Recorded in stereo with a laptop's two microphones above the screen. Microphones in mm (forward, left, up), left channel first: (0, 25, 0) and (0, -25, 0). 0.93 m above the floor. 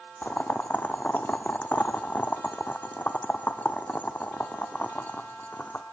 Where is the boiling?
35° left (ahead or behind), 0.5 m.